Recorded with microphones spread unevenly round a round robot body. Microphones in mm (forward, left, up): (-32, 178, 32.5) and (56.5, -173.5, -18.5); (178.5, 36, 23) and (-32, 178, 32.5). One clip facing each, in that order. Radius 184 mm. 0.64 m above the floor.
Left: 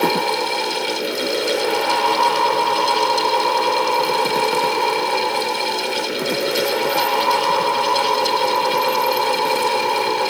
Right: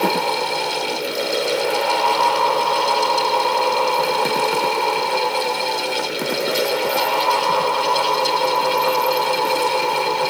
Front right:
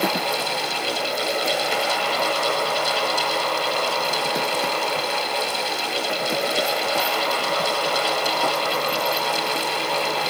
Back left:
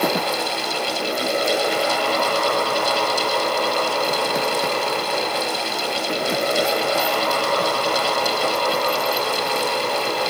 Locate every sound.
Only background noise.